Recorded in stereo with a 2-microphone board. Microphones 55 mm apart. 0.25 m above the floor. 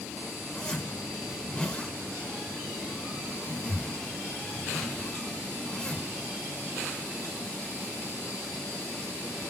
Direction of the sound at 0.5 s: 15° left (ahead or behind).